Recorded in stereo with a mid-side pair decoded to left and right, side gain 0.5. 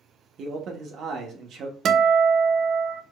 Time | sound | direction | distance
0.4 | a man speaking | 60° right | 1.0 m
1.9 | a guitar | 55° right | 0.6 m